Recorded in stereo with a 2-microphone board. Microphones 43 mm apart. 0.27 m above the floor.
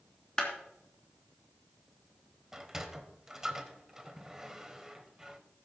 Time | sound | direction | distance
0.4 | a clap | 20° left (ahead or behind) | 3.5 m
2.5 | a sliding door | 15° right (ahead or behind) | 1.1 m